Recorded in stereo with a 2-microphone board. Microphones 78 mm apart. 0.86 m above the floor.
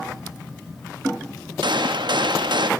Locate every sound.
1.6 s a gunshot: 70° right (ahead or behind), 0.7 m